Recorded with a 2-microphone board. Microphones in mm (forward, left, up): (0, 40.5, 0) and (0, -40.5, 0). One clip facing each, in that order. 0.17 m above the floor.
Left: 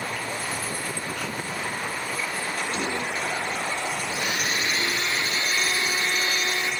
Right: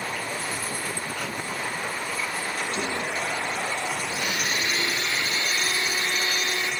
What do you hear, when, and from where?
2.7 s whispering: 35° left (ahead or behind), 1.5 m
4.1 s a blender: 30° left (ahead or behind), 0.6 m